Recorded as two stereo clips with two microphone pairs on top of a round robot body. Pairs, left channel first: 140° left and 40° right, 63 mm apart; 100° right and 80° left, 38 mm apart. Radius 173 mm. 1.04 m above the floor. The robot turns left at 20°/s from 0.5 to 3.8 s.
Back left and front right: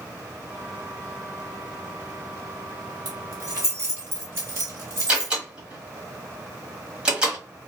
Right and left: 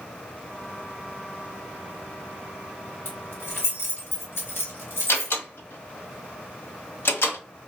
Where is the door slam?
115° right, 1.1 m.